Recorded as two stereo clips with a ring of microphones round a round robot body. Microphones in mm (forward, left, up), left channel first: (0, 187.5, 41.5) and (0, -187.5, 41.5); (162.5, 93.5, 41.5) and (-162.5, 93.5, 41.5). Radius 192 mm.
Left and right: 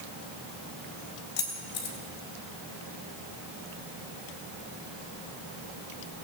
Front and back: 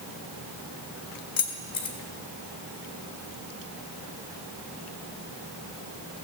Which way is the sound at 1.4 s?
30° left.